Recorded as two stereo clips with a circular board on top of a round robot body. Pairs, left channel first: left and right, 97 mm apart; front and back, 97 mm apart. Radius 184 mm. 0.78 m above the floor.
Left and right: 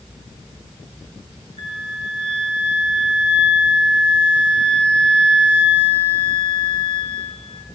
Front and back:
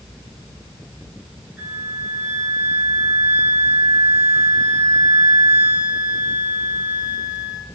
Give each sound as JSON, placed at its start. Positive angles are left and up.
{"t": 1.6, "sound": "a flute", "azimuth_deg": 100, "distance_m": 4.0}